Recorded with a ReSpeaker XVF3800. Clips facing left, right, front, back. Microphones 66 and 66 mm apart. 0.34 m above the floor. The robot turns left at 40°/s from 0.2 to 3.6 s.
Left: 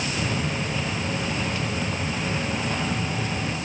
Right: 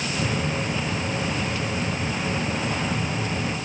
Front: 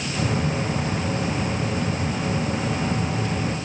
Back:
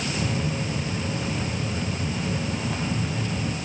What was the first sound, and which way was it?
Only background noise.